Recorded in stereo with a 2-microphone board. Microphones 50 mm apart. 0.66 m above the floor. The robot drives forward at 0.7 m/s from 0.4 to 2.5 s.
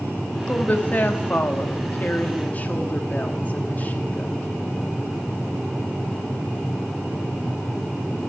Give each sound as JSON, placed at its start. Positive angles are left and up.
{"t": 0.5, "sound": "a woman speaking", "side_deg": 35, "distance_m": 1.5}